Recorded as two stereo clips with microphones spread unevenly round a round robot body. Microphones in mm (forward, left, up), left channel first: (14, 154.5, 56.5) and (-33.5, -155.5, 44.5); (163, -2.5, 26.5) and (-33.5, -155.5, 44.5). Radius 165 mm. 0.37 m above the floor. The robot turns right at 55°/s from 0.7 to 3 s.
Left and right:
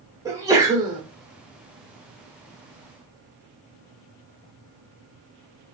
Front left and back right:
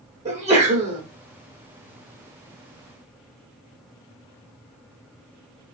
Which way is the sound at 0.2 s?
155° right.